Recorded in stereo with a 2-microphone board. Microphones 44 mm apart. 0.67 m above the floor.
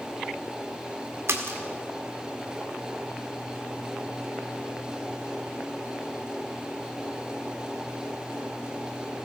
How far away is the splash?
About 1.8 m.